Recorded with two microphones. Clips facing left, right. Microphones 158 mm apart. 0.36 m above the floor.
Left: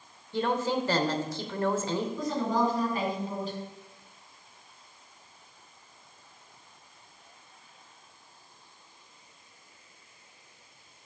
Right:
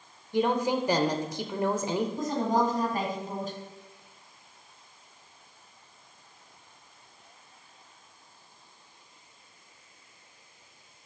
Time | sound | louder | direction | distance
0.3 | a woman speaking | right 2 dB | 15° right (ahead or behind) | 0.8 m
2.2 | a woman speaking | right 1 dB | 45° right (ahead or behind) | 2.5 m